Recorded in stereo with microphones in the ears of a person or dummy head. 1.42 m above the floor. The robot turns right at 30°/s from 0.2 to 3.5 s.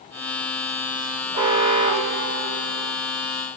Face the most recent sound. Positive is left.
turn(degrees=-90)